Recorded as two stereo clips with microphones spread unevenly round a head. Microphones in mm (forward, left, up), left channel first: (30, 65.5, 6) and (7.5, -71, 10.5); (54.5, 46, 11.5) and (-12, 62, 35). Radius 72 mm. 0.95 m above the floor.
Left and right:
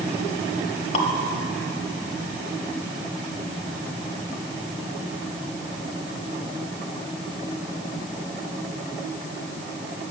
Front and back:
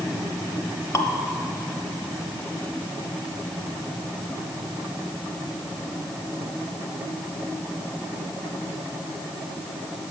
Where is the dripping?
40° left, 1.3 m.